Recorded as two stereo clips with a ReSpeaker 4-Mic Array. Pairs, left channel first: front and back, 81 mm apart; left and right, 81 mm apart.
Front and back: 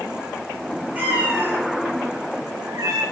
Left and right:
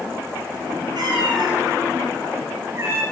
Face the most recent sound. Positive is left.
turn(degrees=-150)